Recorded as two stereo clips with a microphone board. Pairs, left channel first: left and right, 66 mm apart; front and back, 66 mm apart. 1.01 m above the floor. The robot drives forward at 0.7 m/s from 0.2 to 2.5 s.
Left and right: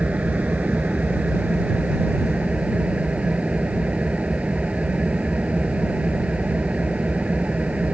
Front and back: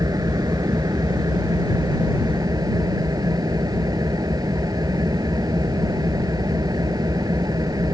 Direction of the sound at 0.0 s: 160° right.